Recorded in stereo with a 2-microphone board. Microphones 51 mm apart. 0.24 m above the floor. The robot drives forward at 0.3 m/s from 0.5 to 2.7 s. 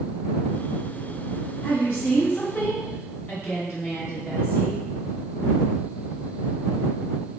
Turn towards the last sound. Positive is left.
turn(degrees=45)  # may be behind; listen again after turning